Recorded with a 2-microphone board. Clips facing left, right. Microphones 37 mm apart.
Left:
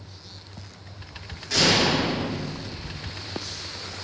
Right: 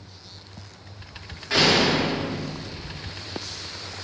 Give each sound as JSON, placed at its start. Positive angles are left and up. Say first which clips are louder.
{"t": 1.5, "sound": "a door slam", "louder": "right 2 dB", "side_deg": -30, "distance_m": 6.0}